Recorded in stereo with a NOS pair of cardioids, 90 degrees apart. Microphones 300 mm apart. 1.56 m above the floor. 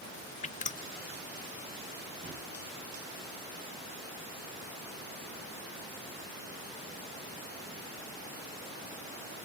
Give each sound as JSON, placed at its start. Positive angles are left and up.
{"t": 0.4, "sound": "dripping", "azimuth_deg": 25, "distance_m": 0.7}
{"t": 2.2, "sound": "a thud", "azimuth_deg": -25, "distance_m": 6.0}